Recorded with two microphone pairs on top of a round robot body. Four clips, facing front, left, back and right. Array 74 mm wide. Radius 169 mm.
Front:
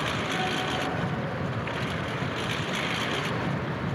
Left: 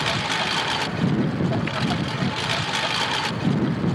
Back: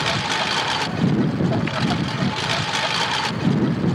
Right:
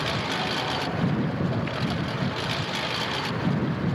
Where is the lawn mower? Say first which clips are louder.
Left 3 dB, back 5 dB; 150° left.